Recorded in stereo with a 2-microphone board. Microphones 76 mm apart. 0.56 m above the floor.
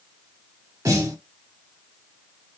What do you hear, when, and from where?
0.8 s a snare drum: 40° right (ahead or behind), 1.6 m